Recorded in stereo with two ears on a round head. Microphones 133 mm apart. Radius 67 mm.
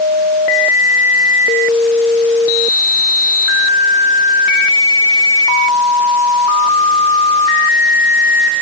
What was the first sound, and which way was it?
Only background noise.